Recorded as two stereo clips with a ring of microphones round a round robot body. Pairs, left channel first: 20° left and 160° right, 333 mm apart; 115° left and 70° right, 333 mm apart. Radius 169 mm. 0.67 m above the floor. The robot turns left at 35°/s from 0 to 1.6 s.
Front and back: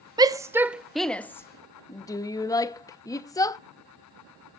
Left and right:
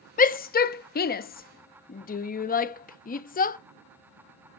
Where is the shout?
140° left, 0.6 m; by 3.6 s 90° left, 0.6 m.